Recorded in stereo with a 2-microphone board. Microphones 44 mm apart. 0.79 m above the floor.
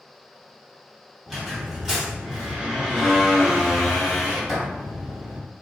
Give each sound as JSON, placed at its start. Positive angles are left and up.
{"t": 1.3, "sound": "a squeak", "side_deg": -5, "distance_m": 1.1}